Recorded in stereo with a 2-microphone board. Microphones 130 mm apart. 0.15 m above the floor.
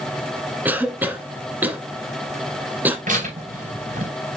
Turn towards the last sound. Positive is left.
turn(degrees=-85)